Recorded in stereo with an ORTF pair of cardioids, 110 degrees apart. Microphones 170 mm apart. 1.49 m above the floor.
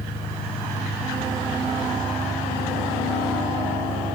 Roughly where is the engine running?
Ahead.